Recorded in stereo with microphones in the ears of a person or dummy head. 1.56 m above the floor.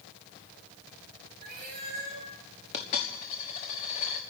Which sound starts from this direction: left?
A dropped coin, at 2.7 s.